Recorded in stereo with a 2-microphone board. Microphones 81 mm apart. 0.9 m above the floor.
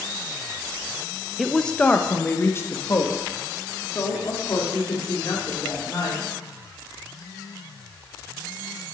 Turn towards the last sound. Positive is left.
turn(degrees=45)  # may be behind; listen again after turning